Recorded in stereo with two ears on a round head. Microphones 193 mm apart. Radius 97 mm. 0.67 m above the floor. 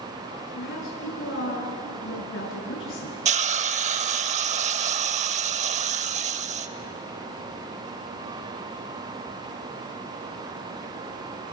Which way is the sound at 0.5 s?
60° left (ahead or behind).